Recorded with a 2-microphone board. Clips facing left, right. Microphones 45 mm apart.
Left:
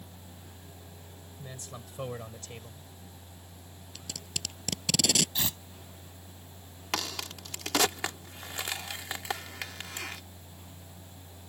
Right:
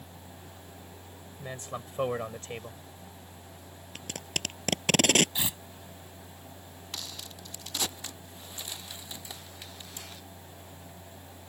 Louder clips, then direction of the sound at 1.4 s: Right 7 dB; 35° right (ahead or behind).